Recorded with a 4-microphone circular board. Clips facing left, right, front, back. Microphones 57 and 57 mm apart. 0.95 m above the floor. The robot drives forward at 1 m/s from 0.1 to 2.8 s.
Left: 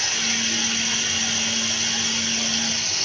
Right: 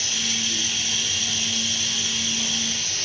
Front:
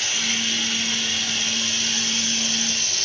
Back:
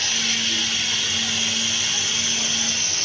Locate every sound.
0.0 s running water: 80° left, 4.5 m; by 3.1 s 115° left, 5 m